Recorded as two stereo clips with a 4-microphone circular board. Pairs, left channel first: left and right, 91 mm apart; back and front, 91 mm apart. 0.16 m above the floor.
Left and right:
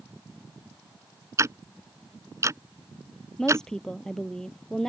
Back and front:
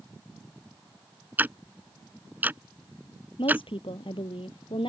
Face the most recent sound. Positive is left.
turn(degrees=170)